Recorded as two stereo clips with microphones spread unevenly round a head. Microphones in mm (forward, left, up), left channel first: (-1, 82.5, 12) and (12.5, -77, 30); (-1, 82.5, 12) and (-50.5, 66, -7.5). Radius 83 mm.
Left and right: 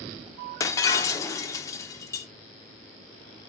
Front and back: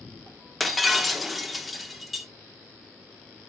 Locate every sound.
0.6 s breaking glass: 35° left, 0.9 m